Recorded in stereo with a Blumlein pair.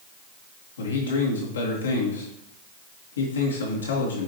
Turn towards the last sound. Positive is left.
turn(degrees=70)